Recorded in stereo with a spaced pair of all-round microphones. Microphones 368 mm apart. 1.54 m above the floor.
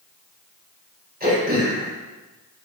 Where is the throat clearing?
25° right (ahead or behind), 7.5 m.